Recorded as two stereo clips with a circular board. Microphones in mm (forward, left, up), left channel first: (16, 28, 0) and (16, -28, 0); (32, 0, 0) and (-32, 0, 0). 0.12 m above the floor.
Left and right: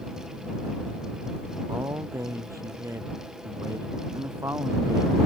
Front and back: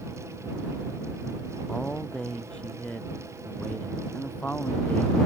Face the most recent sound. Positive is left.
turn(degrees=-65)